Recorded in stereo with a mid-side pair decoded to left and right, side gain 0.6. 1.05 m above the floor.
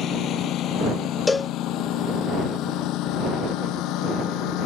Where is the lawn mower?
55° left; by 4.7 s 70° left.